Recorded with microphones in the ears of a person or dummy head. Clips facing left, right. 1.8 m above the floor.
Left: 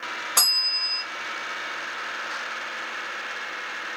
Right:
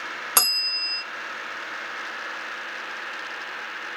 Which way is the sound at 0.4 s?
55° right (ahead or behind).